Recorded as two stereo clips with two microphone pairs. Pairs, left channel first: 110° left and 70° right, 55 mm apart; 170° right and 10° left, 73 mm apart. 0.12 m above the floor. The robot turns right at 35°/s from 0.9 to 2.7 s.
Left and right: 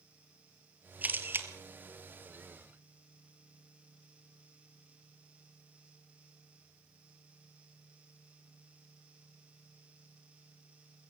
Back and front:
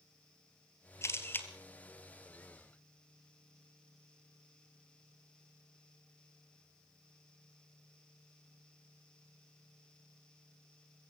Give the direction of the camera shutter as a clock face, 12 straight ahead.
4 o'clock.